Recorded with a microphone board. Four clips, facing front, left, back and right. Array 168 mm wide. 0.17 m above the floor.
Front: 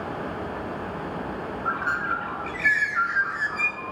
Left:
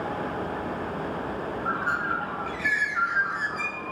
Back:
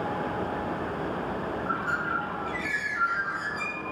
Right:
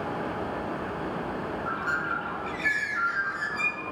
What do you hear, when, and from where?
1.6 s a bird: 30° left, 1.0 m